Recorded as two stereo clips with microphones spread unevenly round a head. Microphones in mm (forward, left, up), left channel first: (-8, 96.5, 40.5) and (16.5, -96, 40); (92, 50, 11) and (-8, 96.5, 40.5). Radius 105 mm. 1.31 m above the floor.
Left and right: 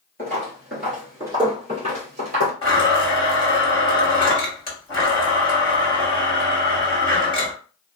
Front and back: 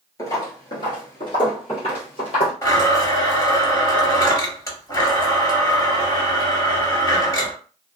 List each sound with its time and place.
0.2 s footsteps: 35° left, 1.3 m; by 2.5 s 65° right, 1.6 m
2.6 s a blender: 30° left, 1.7 m